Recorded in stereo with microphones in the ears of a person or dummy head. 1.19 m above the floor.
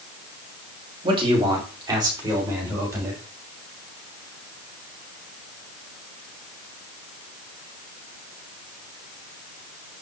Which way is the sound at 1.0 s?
30° right (ahead or behind).